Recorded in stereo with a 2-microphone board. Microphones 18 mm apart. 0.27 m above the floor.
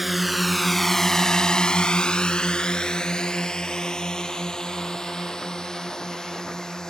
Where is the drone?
10° right (ahead or behind); by 6.9 s 45° left (ahead or behind).